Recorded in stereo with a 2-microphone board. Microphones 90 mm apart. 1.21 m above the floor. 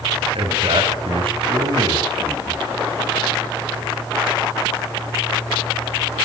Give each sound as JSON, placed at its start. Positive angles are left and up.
{"t": 0.3, "sound": "a man speaking", "side_deg": -75, "distance_m": 8.0}